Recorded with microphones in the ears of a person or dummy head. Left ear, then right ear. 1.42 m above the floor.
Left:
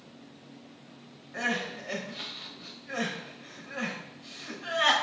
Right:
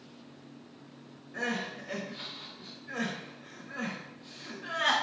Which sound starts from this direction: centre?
Crying, at 1.3 s.